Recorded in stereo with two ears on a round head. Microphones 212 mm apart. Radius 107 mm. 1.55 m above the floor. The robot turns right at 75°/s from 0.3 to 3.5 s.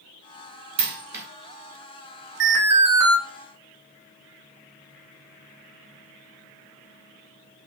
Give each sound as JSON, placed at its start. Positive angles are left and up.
{"t": 0.8, "sound": "a dropped coin", "side_deg": -25, "distance_m": 1.0}
{"t": 2.4, "sound": "an alarm", "azimuth_deg": -120, "distance_m": 1.1}